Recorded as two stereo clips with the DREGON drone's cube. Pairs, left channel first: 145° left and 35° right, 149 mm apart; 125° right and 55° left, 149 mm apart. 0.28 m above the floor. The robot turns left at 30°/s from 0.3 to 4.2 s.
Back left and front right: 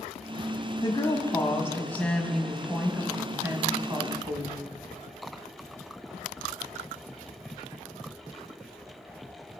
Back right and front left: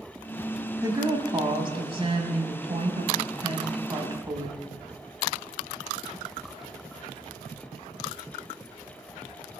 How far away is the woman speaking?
About 1.1 m.